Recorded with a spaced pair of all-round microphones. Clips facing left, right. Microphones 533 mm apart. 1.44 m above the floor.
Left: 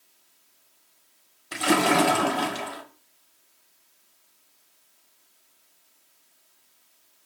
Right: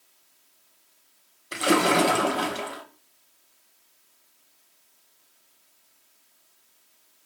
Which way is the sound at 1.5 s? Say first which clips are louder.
Even; 15° left (ahead or behind).